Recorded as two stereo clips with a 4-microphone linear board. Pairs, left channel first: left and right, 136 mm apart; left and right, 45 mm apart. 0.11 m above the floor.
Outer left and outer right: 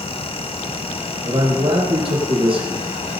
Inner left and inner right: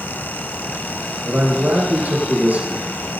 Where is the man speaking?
40° right (ahead or behind), 5 m.